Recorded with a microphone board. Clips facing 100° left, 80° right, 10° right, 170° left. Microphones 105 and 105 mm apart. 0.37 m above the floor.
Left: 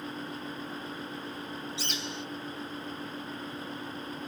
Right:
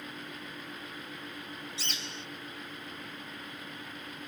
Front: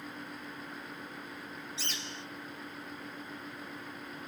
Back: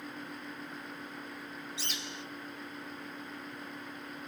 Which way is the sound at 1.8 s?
115° right.